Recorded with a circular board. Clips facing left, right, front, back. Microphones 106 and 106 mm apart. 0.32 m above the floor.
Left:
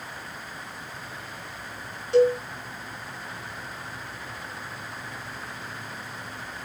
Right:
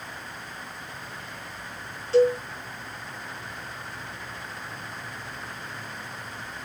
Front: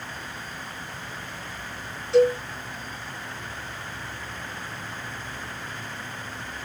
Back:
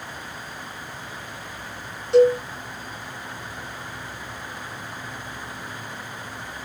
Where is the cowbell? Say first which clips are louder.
Even, back 3 dB; 165° left, 1.7 m.